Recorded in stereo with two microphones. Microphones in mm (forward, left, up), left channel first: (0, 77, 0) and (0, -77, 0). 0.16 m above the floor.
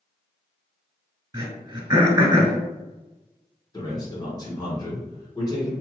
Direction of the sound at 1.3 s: 25° right (ahead or behind).